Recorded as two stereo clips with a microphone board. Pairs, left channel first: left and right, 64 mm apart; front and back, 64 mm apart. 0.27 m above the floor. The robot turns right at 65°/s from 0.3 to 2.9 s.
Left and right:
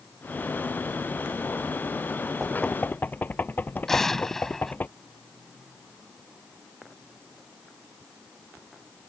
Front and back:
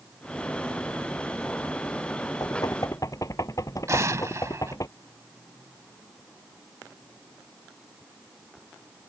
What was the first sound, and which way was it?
Knocking, 5° right.